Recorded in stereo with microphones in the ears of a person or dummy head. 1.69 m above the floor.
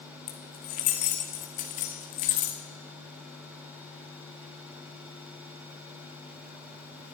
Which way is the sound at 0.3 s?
40° left (ahead or behind).